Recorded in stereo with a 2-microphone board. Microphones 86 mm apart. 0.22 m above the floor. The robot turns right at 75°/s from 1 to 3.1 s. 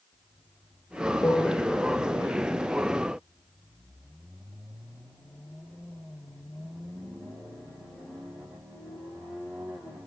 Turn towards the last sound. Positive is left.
turn(degrees=-70)